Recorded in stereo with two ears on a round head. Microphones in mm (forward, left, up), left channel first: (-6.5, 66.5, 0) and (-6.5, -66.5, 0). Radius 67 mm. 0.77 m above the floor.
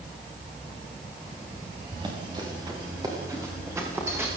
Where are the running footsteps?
30° right (ahead or behind), 8 m; by 4.3 s 15° right (ahead or behind), 9.5 m.